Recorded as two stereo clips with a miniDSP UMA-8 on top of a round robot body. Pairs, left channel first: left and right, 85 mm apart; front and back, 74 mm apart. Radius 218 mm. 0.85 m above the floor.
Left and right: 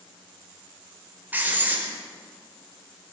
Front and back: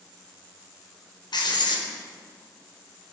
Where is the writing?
20° right, 4.5 m.